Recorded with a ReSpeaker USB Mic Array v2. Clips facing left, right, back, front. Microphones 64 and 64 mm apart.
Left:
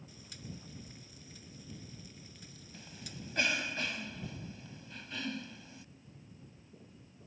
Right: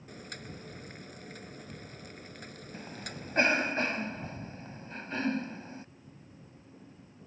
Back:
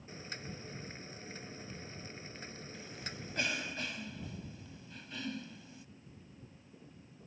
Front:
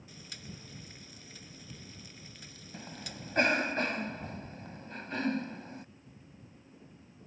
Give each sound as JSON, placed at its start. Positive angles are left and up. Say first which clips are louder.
{"t": 0.1, "sound": "boiling", "louder": "right 9 dB, back 4 dB", "azimuth_deg": -125}
{"t": 2.7, "sound": "a cough", "louder": "right 6 dB, front 5 dB", "azimuth_deg": -40}